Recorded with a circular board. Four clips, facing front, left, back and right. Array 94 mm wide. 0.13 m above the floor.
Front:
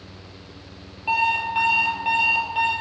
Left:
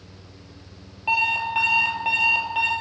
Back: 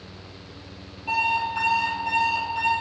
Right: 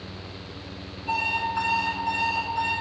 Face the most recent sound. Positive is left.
turn(degrees=65)